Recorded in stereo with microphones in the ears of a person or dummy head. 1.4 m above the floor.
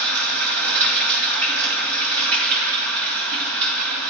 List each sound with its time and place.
0.0 s running water: 60° right (ahead or behind), 2 m